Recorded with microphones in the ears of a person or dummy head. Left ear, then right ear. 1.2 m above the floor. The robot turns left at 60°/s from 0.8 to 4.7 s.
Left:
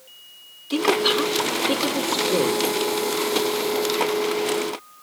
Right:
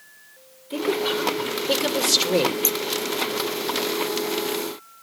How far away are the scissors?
About 0.9 m.